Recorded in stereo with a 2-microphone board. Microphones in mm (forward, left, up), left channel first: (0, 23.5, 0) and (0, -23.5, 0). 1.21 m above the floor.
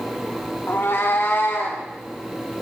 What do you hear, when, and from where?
0.7 s a cat meowing: 55° left (ahead or behind), 1.1 m; by 1.8 s 50° left (ahead or behind), 2.5 m